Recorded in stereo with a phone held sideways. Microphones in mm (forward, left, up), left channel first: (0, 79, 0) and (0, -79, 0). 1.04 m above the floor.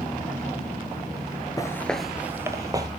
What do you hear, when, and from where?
1.6 s footsteps: 20° left (ahead or behind), 1.1 m; by 2.9 s 25° right (ahead or behind), 2.0 m